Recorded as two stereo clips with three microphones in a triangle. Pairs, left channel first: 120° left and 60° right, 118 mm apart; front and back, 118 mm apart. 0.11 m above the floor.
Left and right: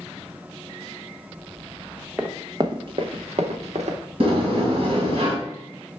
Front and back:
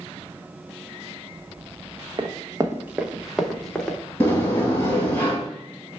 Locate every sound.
2.2 s running footsteps: 140° right, 0.6 m; by 4.0 s 85° right, 1.2 m
4.2 s a sliding door: 65° right, 1.6 m